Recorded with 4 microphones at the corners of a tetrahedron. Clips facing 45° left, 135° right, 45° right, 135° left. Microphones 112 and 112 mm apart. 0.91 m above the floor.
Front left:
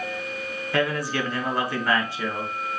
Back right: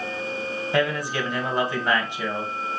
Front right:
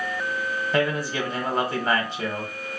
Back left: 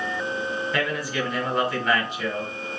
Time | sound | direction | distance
0.7 | a man speaking | 75° right | 1.1 m